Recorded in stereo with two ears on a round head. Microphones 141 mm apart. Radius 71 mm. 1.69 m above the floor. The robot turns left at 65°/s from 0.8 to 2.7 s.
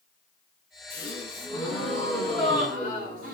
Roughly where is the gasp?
Ahead left.